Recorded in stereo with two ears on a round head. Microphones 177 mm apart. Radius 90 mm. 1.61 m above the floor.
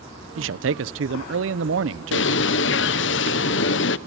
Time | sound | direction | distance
0.4 | a man speaking | 70° right (ahead or behind) | 0.8 m
2.1 | a bird | 65° left (ahead or behind) | 0.8 m